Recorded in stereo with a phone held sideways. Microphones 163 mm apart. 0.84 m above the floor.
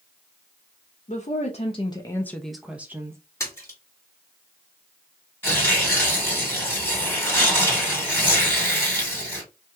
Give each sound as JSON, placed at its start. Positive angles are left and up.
{"t": 1.1, "sound": "a woman speaking", "side_deg": 45, "distance_m": 0.7}
{"t": 3.4, "sound": "a splash", "side_deg": 15, "distance_m": 1.6}
{"t": 5.4, "sound": "tearing paper", "side_deg": 15, "distance_m": 1.9}